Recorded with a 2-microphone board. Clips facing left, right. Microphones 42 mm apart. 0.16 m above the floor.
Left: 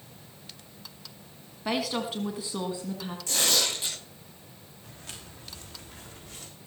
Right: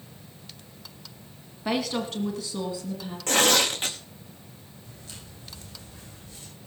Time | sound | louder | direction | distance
1.6 | a woman speaking | right 2 dB | centre (ahead or behind) | 1.5 m
3.3 | tearing paper | right 6 dB | 50° right (ahead or behind) | 3 m
4.8 | footsteps | left 2 dB | 75° left (ahead or behind) | 7 m